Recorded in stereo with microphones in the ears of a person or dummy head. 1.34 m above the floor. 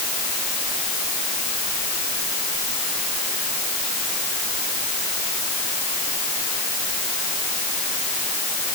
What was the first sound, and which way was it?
Only background noise.